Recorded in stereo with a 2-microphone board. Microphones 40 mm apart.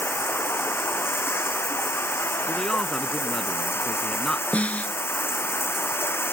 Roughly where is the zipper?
No zipper in this recording.